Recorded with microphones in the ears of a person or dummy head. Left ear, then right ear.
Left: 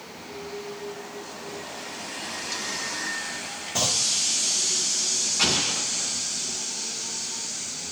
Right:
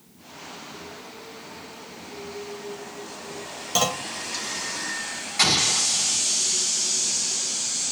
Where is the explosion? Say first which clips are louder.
Right 6 dB; 65° right (ahead or behind), 3 m.